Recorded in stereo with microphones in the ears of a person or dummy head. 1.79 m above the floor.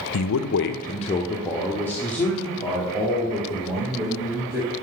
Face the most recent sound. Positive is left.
turn(degrees=-5)  # may be behind; listen again after turning